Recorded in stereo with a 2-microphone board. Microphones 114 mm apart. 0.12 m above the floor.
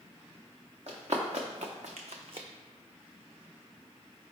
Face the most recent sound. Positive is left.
turn(degrees=-45)  # may be behind; listen again after turning